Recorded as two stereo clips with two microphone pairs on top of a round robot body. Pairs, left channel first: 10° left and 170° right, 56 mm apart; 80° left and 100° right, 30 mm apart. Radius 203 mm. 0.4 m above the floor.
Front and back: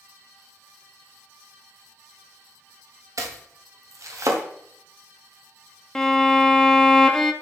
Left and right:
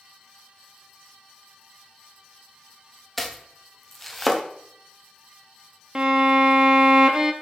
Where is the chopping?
165° left, 0.9 m.